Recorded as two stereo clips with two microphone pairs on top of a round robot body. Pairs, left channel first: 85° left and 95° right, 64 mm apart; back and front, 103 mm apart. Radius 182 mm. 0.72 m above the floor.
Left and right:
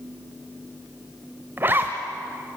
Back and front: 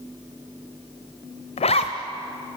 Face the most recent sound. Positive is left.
turn(degrees=-155)